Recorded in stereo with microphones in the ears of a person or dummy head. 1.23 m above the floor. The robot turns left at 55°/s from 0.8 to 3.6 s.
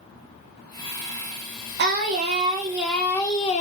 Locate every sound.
1.8 s singing: 120° right, 0.5 m; by 3.6 s 140° left, 0.5 m